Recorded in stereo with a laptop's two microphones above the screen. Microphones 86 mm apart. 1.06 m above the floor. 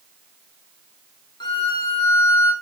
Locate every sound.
1.4 s a violin: 60° left (ahead or behind), 0.6 m